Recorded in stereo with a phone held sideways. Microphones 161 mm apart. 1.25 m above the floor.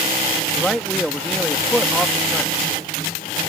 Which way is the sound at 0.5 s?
Centre (ahead or behind).